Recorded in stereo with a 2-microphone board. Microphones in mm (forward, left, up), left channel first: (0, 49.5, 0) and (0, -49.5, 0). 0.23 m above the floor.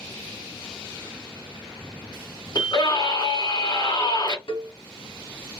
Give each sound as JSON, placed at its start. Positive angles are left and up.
{"t": 2.5, "sound": "a scream", "side_deg": 50, "distance_m": 3.0}
{"t": 4.5, "sound": "a cowbell", "side_deg": 60, "distance_m": 2.0}